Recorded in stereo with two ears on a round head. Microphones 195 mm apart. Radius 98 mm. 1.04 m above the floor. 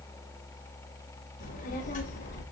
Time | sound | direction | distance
1.4 | a child speaking | 40° left (ahead or behind) | 4.5 m